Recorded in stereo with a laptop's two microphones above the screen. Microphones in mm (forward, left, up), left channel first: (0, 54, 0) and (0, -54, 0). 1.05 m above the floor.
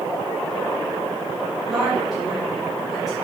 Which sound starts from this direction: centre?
A woman speaking, at 1.7 s.